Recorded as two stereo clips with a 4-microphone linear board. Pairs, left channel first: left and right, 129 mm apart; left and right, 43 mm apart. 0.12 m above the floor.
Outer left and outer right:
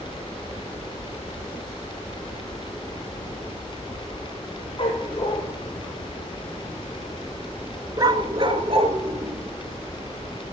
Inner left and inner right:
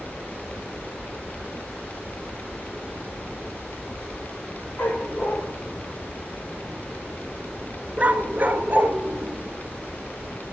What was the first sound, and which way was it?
A dog barking, 40° left (ahead or behind).